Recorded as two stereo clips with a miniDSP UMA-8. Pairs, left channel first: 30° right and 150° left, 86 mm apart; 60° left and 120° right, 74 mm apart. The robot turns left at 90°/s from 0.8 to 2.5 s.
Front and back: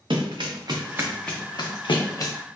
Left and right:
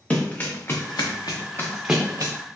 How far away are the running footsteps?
About 0.9 m.